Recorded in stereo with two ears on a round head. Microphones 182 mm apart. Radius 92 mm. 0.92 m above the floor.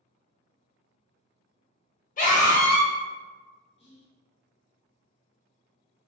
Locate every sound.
2.2 s a scream: 40° left (ahead or behind), 1.1 m
3.8 s whispering: 30° left (ahead or behind), 0.9 m